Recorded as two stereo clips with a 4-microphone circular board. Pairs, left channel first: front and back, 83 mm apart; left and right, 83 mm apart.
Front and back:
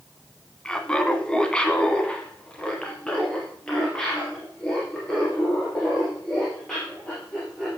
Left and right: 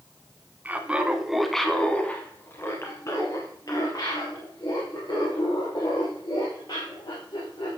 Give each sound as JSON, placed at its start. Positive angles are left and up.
{"t": 0.7, "sound": "laughter", "azimuth_deg": -65, "distance_m": 1.2}